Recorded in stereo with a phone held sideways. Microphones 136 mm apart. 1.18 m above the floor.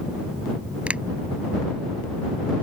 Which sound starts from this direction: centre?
A finger snap, at 0.9 s.